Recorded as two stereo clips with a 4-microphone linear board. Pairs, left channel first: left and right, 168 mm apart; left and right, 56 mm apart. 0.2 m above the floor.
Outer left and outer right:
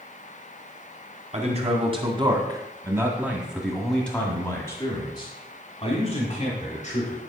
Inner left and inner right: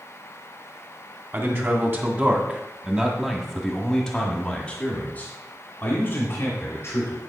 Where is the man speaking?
40° right (ahead or behind), 2.0 m; by 7.2 s 45° left (ahead or behind), 2.5 m.